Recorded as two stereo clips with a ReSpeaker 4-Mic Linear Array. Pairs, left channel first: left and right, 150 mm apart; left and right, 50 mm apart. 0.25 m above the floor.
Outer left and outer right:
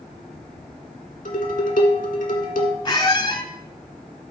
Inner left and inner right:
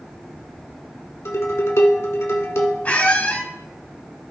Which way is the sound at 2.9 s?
35° left (ahead or behind).